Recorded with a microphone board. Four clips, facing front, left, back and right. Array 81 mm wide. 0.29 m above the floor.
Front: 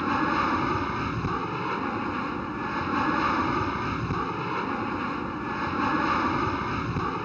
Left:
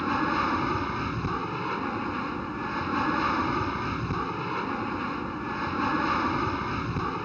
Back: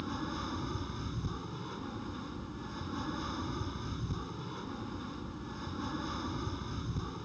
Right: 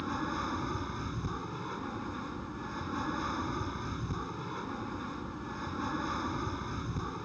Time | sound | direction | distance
0.0 | an aircraft | 35° left | ?